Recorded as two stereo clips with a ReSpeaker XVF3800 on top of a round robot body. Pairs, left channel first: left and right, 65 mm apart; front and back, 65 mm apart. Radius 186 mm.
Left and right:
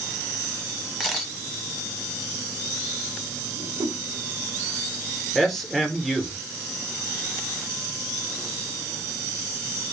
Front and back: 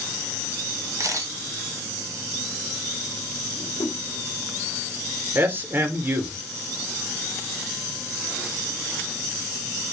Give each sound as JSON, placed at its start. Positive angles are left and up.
{"t": 1.0, "sound": "a camera shutter", "azimuth_deg": 180, "distance_m": 1.1}
{"t": 3.5, "sound": "a whoosh", "azimuth_deg": -35, "distance_m": 0.7}
{"t": 5.3, "sound": "a man speaking", "azimuth_deg": 170, "distance_m": 1.0}